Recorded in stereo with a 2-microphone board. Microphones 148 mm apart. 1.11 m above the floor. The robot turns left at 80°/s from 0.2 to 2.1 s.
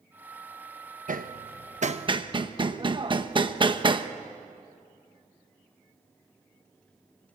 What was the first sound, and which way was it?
Hammering, 65° right (ahead or behind).